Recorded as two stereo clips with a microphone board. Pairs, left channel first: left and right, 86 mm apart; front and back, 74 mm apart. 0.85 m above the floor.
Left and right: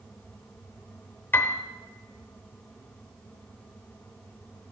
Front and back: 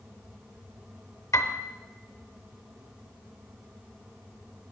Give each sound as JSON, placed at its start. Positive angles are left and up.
{"t": 1.3, "sound": "a piano", "azimuth_deg": 30, "distance_m": 0.8}